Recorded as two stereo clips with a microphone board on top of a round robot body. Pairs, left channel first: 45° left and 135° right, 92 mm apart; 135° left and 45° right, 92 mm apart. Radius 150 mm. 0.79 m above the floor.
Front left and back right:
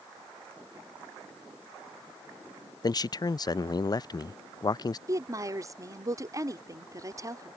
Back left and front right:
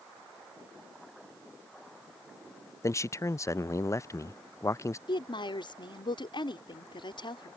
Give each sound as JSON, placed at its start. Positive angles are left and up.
{"t": 2.8, "sound": "a man speaking", "azimuth_deg": 80}
{"t": 5.1, "sound": "a woman speaking", "azimuth_deg": 170}